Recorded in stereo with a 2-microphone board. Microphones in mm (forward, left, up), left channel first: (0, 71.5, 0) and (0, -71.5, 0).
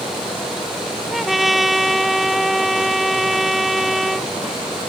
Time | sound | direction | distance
1.1 | a trumpet | centre (ahead or behind) | ?